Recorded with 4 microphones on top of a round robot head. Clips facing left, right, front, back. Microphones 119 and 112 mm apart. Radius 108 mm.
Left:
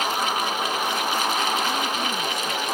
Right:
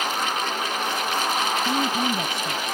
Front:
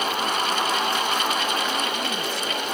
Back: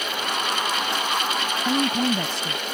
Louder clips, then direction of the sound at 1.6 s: Right 2 dB, back 5 dB; 155° right.